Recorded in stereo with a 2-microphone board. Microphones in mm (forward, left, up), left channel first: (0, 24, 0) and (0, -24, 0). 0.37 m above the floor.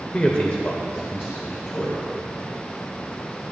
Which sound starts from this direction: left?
A man speaking, at 0.1 s.